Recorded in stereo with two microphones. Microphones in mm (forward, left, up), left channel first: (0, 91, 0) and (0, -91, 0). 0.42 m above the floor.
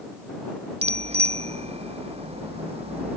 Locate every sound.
0.8 s a bicycle bell: 35° right (ahead or behind)